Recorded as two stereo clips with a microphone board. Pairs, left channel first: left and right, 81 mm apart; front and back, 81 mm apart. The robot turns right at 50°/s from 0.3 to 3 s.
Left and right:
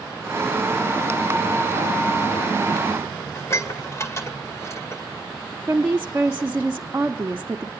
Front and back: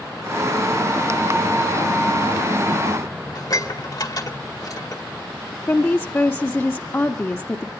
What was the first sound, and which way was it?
Dishes clattering, 40° left.